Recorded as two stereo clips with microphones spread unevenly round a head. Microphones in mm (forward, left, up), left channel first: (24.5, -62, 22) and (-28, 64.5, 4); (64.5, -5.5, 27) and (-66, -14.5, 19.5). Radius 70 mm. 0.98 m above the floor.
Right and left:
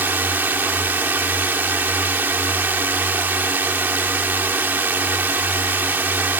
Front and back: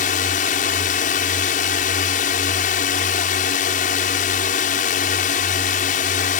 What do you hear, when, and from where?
0.0 s a drone: 35° left